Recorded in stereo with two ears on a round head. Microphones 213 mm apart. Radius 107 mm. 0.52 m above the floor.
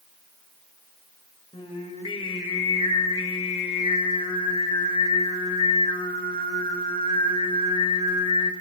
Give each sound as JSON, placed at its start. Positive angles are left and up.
{"t": 1.5, "sound": "singing", "side_deg": 25, "distance_m": 2.0}